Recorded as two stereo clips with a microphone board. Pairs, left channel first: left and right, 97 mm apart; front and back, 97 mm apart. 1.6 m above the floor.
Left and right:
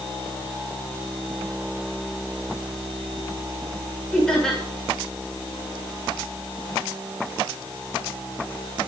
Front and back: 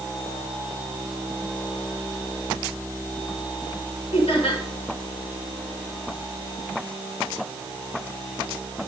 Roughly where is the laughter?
Ahead.